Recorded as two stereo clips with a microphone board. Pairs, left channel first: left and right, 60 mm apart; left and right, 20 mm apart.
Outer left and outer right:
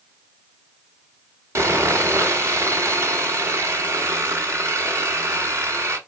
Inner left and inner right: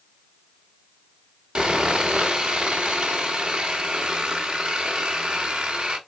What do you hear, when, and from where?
1.6 s sawing: 50° right (ahead or behind), 1.5 m